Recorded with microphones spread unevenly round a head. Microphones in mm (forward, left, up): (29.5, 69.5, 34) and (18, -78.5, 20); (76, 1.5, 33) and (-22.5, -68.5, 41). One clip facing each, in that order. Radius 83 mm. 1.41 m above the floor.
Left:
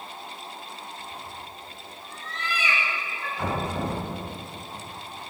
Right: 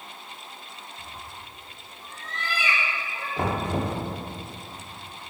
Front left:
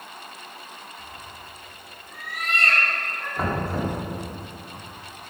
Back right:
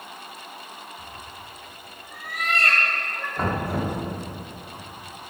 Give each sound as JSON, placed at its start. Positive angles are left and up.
{"t": 1.0, "sound": "a cat meowing", "azimuth_deg": -145, "distance_m": 5.5}
{"t": 3.4, "sound": "knocking", "azimuth_deg": -50, "distance_m": 3.5}